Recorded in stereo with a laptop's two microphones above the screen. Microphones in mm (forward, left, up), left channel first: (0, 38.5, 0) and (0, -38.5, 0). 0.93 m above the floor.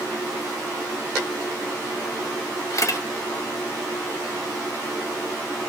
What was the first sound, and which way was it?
A camera shutter, 50° left (ahead or behind).